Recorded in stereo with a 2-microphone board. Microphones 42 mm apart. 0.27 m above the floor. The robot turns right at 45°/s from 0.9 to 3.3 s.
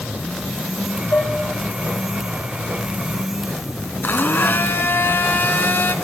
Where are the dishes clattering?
60° left (ahead or behind), 2 m; by 1.4 s 50° left (ahead or behind), 2 m.